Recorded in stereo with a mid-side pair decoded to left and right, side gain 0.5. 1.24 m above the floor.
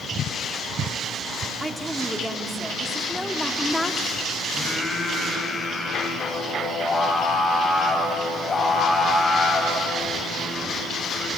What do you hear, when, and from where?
1.6 s a woman speaking: 15° right, 4 m; by 4.1 s 10° left, 3.5 m
4.5 s singing: 35° left, 7 m